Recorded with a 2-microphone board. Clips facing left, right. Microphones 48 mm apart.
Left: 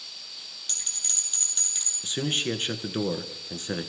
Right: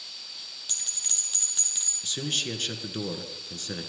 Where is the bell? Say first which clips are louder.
Left 1 dB; 5° right (ahead or behind), 3 m.